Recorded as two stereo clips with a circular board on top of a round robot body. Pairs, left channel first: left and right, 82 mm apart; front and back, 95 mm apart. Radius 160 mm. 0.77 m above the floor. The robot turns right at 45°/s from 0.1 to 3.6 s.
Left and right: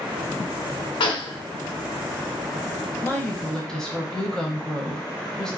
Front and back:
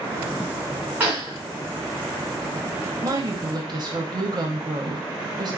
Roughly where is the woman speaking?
Behind left.